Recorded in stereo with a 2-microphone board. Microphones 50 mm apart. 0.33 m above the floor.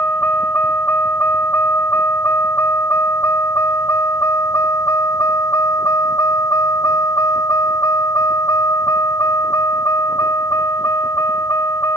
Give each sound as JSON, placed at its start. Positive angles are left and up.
{"t": 0.0, "sound": "a vehicle", "side_deg": 40}